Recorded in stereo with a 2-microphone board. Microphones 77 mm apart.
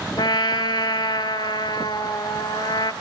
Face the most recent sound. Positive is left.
turn(degrees=80)